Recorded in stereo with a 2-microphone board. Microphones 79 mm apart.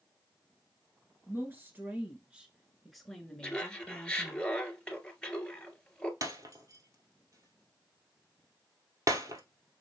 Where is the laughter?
10° left (ahead or behind), 1.6 m.